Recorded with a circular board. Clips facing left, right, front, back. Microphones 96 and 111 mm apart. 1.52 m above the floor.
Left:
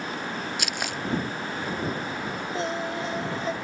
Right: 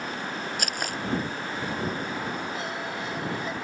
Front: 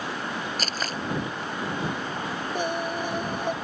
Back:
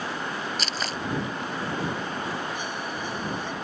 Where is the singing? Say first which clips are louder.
Left 4 dB, front 5 dB; 35° left.